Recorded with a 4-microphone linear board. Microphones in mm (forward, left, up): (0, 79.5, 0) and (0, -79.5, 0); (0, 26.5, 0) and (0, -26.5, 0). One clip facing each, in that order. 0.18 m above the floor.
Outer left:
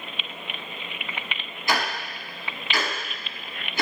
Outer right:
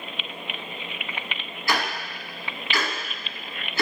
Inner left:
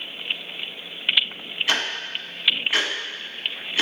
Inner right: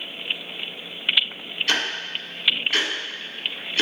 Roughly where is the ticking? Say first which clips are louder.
Even, even; left.